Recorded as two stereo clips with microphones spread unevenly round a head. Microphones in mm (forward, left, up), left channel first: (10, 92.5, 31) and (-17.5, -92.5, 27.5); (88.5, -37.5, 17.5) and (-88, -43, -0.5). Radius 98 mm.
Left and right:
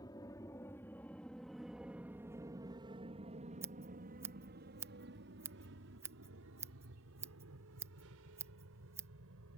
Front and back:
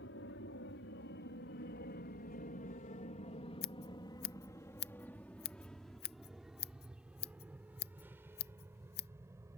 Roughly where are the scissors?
Ahead.